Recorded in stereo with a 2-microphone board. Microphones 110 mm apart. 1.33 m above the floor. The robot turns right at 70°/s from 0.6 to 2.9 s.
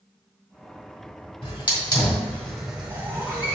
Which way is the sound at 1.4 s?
55° left (ahead or behind).